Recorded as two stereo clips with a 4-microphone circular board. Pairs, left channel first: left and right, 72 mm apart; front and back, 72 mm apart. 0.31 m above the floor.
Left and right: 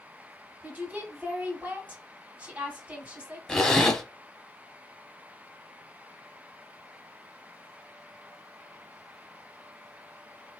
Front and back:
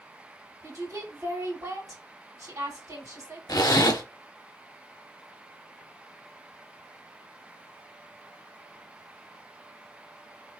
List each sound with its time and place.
0.6 s a woman speaking: 160° right, 2.0 m
3.5 s a zipper: 10° left, 0.9 m